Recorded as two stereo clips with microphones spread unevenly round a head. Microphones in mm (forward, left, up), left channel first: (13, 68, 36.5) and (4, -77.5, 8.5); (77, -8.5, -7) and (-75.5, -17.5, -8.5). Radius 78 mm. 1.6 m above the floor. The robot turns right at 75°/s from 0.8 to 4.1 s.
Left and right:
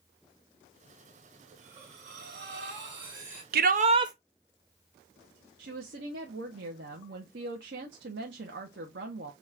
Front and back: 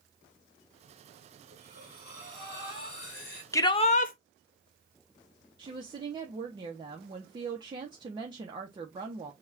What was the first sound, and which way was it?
Breathing, 150° right.